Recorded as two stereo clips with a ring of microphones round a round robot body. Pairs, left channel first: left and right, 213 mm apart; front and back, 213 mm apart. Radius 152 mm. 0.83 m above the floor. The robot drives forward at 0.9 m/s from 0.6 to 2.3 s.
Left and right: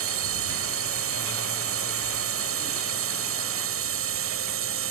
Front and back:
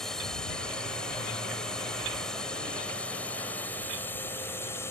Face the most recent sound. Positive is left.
turn(degrees=-80)